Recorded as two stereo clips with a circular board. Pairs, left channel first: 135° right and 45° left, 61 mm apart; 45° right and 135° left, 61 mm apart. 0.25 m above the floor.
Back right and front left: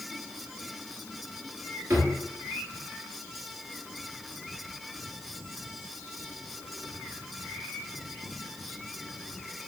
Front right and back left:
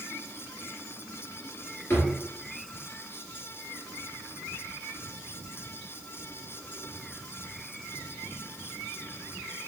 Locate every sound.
1.9 s a drawer: straight ahead, 1.6 m